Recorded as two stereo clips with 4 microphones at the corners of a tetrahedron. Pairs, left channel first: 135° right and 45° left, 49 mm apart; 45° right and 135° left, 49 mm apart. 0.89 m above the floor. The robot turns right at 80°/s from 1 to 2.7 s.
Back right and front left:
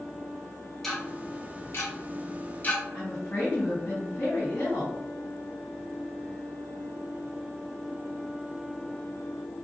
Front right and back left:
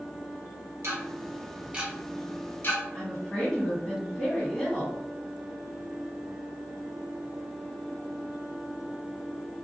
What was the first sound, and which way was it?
Ticking, 140° left.